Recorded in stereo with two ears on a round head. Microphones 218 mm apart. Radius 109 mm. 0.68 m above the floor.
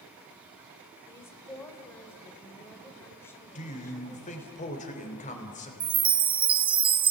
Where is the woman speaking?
10° left (ahead or behind), 2.5 m.